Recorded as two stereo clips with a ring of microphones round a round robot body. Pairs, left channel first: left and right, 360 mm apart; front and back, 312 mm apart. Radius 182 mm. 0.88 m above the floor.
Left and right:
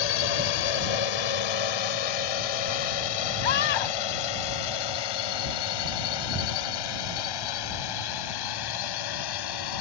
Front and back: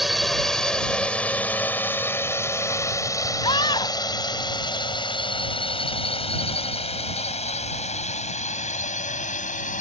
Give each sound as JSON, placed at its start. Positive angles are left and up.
{"t": 0.0, "sound": "a drone", "azimuth_deg": 90}
{"t": 3.4, "sound": "a scream", "azimuth_deg": 75}